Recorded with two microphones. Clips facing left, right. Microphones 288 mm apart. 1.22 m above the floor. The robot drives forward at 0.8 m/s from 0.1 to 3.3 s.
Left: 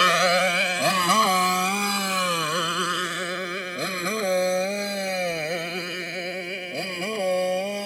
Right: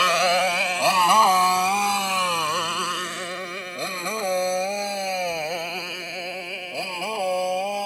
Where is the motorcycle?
20° left (ahead or behind).